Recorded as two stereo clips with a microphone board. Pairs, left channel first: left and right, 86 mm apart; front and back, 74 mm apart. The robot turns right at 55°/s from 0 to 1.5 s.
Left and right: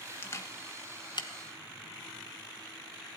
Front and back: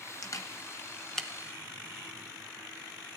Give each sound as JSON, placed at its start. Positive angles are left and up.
{"t": 0.2, "sound": "a camera shutter", "azimuth_deg": 30, "distance_m": 1.3}